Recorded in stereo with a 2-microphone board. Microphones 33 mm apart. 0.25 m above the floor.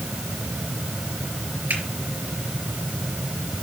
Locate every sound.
1.7 s a finger snap: 65° right (ahead or behind), 4 m